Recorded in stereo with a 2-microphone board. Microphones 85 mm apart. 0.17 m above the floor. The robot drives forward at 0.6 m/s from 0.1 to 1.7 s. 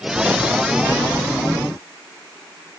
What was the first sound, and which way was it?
Only background noise.